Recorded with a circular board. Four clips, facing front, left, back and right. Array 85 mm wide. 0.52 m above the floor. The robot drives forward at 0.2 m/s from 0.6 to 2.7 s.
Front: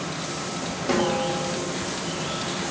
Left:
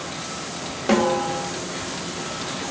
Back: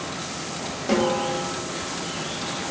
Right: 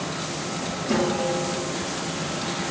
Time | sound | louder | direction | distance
0.9 | a snare drum | left 4 dB, back 1 dB | 95° left | 0.7 m